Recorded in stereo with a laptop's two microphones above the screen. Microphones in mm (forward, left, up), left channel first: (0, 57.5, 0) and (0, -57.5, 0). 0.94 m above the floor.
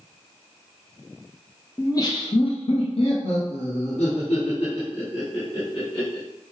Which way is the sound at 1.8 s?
25° left (ahead or behind).